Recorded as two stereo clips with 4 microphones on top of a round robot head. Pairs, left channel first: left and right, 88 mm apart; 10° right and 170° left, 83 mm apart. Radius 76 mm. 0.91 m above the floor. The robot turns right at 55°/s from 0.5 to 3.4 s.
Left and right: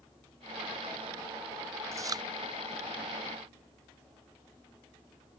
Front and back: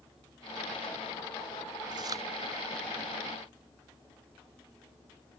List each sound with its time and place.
1.9 s chewing: 145° right; by 2.2 s 130° right